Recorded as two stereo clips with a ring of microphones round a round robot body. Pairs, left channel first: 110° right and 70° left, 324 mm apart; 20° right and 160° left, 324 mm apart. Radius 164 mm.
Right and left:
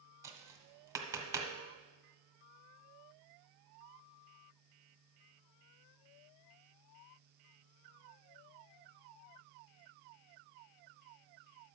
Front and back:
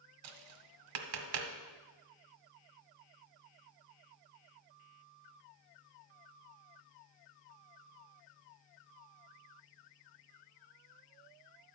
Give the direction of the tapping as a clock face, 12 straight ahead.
7 o'clock.